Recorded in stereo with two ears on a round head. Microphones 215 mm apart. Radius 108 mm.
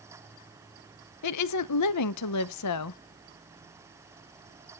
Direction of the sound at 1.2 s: 80° left.